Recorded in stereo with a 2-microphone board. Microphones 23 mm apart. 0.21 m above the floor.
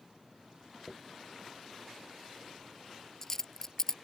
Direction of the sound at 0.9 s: 20° left (ahead or behind).